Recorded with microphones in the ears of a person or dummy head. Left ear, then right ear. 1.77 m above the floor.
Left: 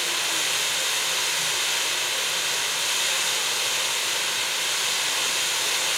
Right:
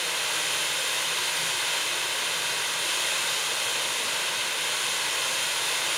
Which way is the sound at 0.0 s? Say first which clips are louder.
Left 3 dB; 5° right (ahead or behind).